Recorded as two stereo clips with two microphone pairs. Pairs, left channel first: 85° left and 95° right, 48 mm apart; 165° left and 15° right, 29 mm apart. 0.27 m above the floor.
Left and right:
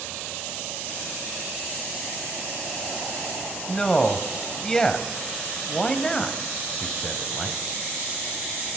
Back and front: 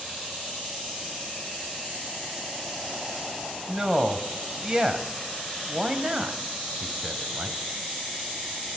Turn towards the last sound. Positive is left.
turn(degrees=15)